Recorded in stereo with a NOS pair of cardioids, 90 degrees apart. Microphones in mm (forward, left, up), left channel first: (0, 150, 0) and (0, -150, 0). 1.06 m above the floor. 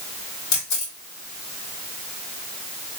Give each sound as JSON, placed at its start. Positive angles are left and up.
{"t": 0.5, "sound": "a camera shutter", "azimuth_deg": 65, "distance_m": 1.8}